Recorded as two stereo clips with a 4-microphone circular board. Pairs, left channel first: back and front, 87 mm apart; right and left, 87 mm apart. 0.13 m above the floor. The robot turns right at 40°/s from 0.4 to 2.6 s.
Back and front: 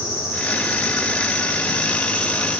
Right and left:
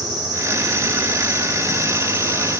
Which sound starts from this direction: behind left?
An insect, at 0.0 s.